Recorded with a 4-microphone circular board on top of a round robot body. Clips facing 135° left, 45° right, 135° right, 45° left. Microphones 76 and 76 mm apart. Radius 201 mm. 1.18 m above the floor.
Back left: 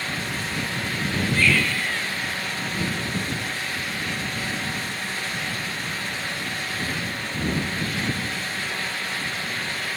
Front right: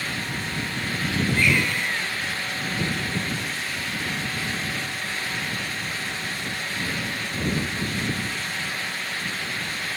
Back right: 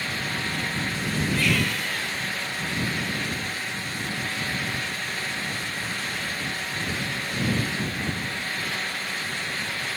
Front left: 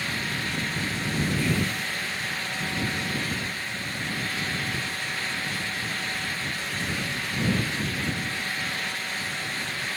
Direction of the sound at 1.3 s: 115° right.